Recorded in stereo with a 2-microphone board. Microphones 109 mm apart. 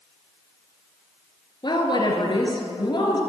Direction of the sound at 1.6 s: 45° left (ahead or behind).